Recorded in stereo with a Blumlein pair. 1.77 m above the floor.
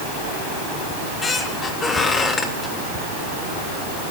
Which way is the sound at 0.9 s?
15° left.